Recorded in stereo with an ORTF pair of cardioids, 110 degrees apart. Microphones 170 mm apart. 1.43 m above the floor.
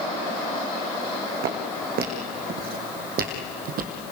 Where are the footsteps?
70° right, 5 m; by 4.0 s 75° right, 3 m.